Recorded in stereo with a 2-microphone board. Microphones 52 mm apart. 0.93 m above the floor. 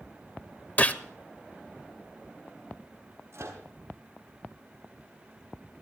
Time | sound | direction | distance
0.8 | a gunshot | 30° left (ahead or behind) | 0.8 m
3.3 | a microwave | 55° right (ahead or behind) | 7 m